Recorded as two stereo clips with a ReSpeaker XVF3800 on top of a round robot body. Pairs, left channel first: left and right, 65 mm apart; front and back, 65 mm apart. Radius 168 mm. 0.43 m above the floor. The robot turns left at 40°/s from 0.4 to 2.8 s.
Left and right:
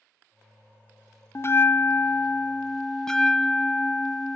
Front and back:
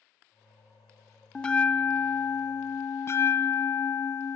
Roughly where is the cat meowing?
I don't hear a cat meowing.